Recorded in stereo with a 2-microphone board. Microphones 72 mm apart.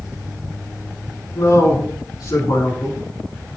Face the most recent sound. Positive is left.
turn(degrees=70)  # may be behind; listen again after turning